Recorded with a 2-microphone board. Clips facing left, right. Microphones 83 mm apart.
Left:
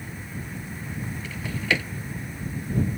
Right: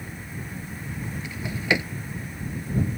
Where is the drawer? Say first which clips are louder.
Right 2 dB; 15° right (ahead or behind).